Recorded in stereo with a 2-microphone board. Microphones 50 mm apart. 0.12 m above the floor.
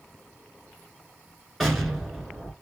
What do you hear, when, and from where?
1.6 s an explosion: centre (ahead or behind), 1.2 m